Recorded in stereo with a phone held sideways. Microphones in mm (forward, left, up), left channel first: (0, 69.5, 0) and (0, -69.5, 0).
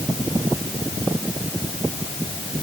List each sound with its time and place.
Only background noise.